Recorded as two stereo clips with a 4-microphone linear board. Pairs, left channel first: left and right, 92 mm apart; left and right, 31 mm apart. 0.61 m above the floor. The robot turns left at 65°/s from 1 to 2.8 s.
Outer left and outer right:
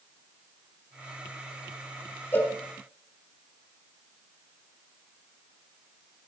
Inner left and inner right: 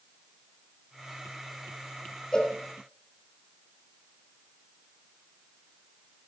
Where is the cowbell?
25° left (ahead or behind), 2.5 m; by 2.5 s 15° left (ahead or behind), 2.5 m.